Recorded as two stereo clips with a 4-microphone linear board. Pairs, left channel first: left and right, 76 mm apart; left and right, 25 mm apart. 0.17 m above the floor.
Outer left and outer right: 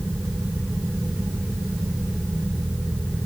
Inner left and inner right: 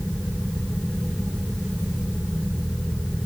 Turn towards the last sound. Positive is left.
No sound to turn to.